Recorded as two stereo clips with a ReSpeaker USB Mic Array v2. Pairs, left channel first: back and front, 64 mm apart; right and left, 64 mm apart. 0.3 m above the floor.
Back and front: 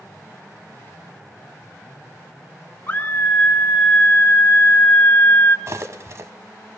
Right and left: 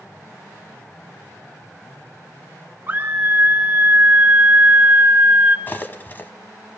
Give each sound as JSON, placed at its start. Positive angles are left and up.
{"t": 2.9, "sound": "a scream", "azimuth_deg": 135, "distance_m": 1.3}
{"t": 5.7, "sound": "cutlery clinking", "azimuth_deg": -35, "distance_m": 1.0}